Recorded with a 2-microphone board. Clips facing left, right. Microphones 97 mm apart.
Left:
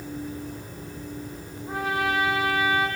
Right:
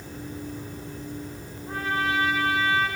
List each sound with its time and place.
1.7 s a trumpet: 15° left (ahead or behind), 7.5 m